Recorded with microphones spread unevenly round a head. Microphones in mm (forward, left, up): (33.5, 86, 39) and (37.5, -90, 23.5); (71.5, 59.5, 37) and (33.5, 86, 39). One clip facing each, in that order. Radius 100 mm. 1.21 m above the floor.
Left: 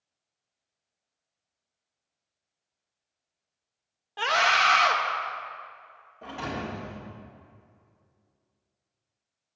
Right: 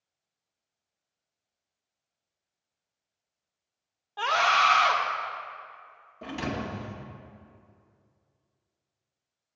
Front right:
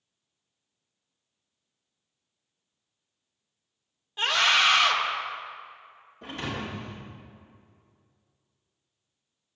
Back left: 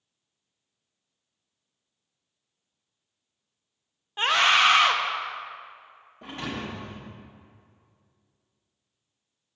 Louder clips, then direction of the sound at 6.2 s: Right 2 dB, even; 140° right.